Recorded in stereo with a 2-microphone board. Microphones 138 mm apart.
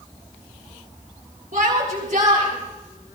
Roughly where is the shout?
Right.